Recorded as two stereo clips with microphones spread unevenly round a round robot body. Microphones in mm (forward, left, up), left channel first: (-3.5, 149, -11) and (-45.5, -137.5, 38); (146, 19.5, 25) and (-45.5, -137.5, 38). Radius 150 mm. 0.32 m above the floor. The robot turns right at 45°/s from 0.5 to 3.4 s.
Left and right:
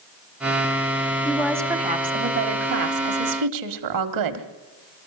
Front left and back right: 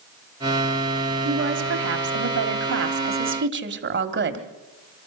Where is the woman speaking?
160° left, 2 m; by 4.5 s 100° right, 2 m.